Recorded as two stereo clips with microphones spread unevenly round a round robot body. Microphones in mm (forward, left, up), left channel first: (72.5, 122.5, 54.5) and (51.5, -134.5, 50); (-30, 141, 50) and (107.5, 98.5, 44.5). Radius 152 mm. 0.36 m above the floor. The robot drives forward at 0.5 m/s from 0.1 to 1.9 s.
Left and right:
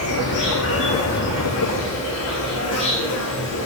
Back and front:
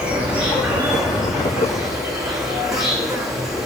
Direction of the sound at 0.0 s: 65° left.